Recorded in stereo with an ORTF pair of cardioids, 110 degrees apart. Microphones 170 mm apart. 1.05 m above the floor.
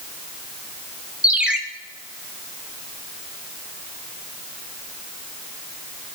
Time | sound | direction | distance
1.2 | a ringtone | 5° right | 1.1 m